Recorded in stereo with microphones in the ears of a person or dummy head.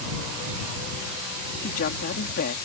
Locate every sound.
1.6 s a woman speaking: 50° left (ahead or behind)